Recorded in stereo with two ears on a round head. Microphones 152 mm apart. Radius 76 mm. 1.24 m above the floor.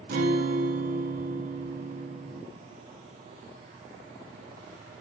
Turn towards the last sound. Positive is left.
turn(degrees=-60)  # may be behind; listen again after turning